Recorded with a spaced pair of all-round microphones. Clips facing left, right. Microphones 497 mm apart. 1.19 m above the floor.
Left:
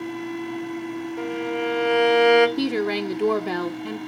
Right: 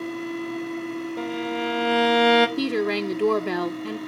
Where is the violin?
55° right (ahead or behind), 1.0 m.